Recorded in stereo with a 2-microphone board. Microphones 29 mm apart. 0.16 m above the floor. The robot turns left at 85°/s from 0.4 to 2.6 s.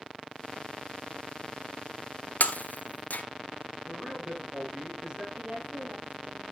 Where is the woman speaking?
70° right (ahead or behind), 3.5 m.